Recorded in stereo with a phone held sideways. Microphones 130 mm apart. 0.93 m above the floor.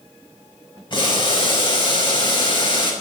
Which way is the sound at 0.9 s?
35° left (ahead or behind).